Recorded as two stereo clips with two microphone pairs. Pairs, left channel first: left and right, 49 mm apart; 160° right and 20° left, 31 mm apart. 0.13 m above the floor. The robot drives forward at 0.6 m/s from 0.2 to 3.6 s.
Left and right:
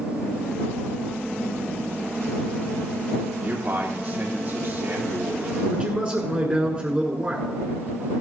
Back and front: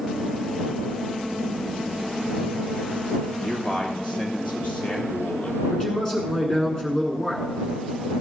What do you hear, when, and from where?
3.4 s a man speaking: 115° right, 3 m; by 5.6 s 120° right, 3 m
5.7 s a man speaking: 110° right, 1.4 m